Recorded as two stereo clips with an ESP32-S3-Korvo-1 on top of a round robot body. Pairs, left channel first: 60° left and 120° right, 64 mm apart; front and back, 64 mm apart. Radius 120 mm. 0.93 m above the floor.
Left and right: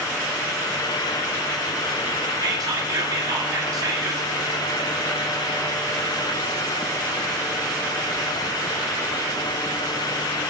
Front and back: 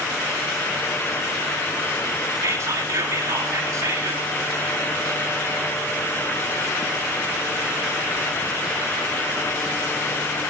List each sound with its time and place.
2.4 s whispering: 140° right, 2 m